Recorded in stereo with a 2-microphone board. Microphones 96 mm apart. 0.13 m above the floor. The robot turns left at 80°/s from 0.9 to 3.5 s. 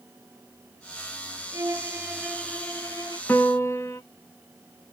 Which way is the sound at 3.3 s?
20° left (ahead or behind).